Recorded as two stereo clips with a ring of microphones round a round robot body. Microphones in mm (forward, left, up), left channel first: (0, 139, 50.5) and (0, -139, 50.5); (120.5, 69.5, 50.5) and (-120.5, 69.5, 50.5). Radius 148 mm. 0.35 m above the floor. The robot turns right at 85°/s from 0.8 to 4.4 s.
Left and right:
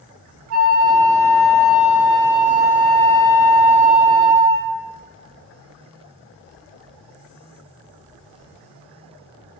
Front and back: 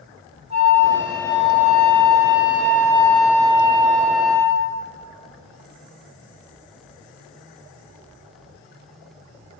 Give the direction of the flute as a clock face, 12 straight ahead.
4 o'clock.